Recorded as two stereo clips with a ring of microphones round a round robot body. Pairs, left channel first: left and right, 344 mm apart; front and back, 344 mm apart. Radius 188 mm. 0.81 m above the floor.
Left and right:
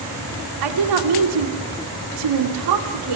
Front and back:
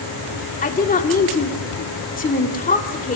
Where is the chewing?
I don't hear chewing.